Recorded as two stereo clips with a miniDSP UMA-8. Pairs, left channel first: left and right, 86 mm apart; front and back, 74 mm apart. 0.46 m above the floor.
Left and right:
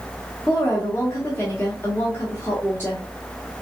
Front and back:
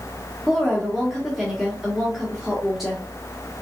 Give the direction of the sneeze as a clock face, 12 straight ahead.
No sneeze in this recording.